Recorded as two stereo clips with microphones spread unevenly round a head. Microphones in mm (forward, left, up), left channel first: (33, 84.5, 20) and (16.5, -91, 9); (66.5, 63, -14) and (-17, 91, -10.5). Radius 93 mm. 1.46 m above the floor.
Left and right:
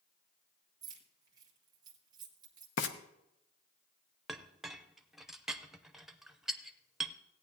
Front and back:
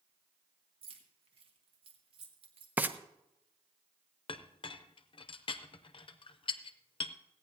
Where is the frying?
95° left, 0.8 m.